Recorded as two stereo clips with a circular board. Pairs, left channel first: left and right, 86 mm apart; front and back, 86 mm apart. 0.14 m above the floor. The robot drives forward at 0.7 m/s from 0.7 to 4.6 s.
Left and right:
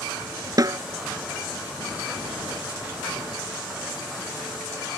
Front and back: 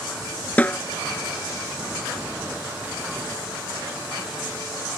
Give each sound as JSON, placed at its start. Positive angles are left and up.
{"t": 0.6, "sound": "a snare drum", "azimuth_deg": -65}